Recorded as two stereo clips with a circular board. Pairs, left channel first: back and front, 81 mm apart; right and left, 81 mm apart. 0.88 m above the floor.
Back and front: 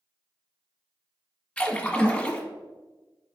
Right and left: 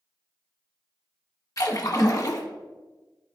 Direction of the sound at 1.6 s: 110° right.